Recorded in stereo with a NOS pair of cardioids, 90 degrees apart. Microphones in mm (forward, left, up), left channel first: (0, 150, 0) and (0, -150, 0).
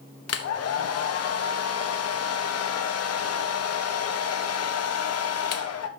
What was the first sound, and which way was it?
A hair dryer, 55° left.